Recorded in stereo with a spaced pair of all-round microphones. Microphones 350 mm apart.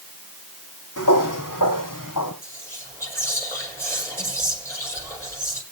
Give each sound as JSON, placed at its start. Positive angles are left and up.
{"t": 1.0, "sound": "footsteps", "side_deg": 65, "distance_m": 3.5}
{"t": 2.4, "sound": "whispering", "side_deg": 10, "distance_m": 5.0}